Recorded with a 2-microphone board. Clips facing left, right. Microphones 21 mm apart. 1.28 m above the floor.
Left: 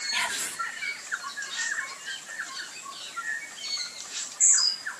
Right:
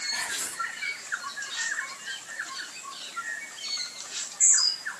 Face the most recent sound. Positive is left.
turn(degrees=60)  # may be behind; listen again after turning